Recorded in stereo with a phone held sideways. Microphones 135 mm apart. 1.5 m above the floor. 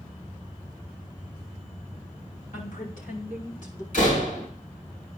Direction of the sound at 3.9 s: 80° left.